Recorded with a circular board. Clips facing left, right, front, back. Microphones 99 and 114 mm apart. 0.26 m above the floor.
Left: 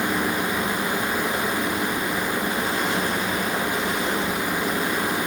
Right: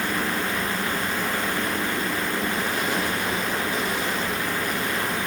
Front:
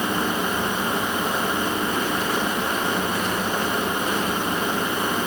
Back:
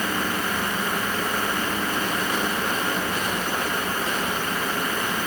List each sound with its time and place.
Only background noise.